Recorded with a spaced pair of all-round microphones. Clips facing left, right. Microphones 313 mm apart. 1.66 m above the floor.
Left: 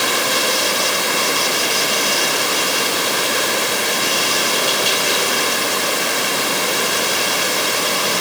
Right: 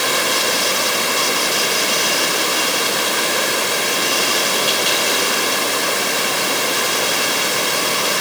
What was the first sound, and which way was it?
Only background noise.